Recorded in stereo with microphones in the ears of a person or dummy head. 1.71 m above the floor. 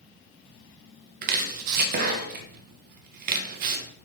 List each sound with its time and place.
1.2 s chopping: 50° right (ahead or behind), 0.5 m